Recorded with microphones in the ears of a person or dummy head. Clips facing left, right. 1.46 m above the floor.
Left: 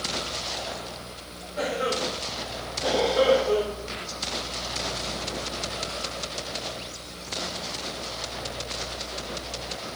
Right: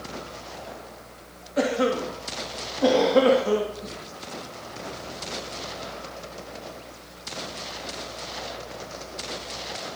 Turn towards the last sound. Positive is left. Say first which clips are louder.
# right 5 dB
turn(degrees=-75)  # may be behind; listen again after turning